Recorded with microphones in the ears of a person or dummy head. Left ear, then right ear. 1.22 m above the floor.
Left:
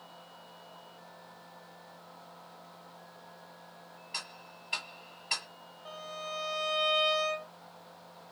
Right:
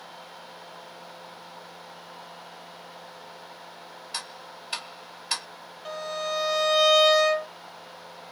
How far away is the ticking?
About 0.8 m.